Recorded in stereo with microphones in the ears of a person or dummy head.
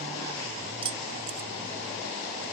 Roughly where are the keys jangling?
Right.